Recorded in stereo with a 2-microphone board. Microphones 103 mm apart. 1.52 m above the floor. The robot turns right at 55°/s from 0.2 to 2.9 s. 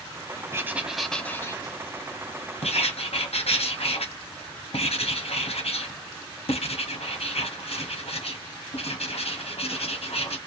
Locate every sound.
0.5 s writing: 25° right, 0.6 m; by 10.4 s 105° left, 0.6 m